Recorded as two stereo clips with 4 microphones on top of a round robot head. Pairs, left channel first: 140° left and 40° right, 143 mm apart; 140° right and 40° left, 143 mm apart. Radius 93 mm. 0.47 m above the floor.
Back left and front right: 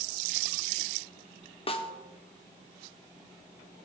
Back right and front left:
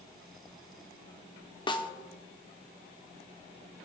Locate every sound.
1.7 s a snare drum: 175° left, 1.0 m